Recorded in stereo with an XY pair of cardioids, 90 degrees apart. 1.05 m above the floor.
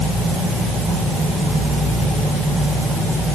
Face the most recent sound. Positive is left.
No sound to turn to.